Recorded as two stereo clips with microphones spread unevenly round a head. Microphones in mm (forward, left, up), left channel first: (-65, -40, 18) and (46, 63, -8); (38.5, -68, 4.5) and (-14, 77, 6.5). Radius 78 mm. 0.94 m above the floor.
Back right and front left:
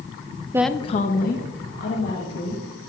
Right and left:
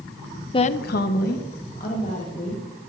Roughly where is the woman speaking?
Ahead.